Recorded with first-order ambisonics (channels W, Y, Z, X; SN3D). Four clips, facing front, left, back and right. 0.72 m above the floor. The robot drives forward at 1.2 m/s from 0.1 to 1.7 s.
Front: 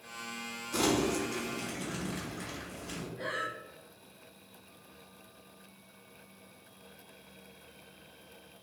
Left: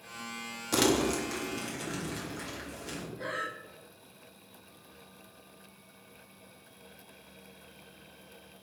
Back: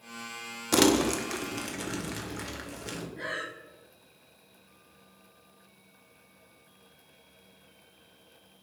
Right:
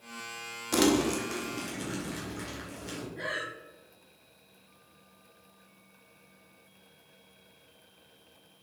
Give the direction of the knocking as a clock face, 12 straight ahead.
I don't hear knocking.